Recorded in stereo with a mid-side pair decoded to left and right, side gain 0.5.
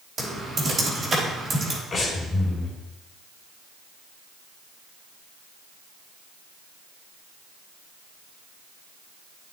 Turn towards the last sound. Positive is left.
turn(degrees=40)